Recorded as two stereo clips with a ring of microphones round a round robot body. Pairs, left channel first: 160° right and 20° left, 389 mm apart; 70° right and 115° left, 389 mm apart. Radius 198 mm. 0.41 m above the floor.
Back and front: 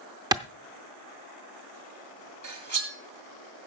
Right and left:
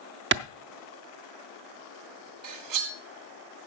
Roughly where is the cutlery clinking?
Left.